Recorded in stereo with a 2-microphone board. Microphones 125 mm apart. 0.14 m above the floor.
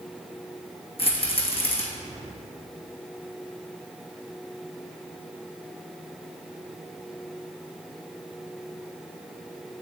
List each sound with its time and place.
1.0 s a rattle: 50° left (ahead or behind), 2 m